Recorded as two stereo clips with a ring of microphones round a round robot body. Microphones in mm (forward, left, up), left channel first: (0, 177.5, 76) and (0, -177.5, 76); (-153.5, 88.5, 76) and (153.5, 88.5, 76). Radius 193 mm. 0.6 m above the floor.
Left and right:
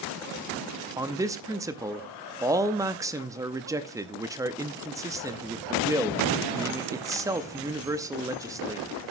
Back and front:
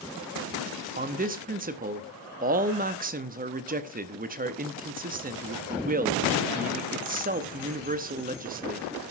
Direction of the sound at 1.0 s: 20° right.